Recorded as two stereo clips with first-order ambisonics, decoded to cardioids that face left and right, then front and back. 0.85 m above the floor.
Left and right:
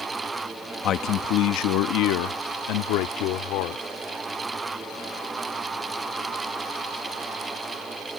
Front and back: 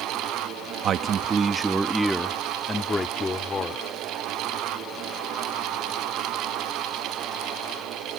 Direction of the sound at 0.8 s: 135° left.